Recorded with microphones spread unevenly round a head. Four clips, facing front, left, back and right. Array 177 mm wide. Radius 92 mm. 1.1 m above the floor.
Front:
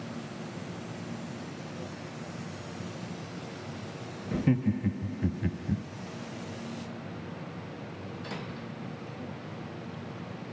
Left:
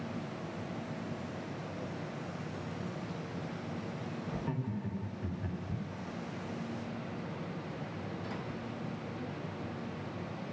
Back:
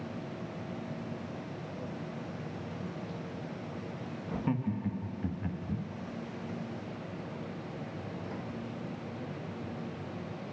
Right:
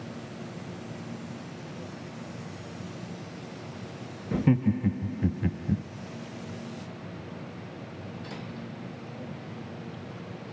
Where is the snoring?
No snoring in this recording.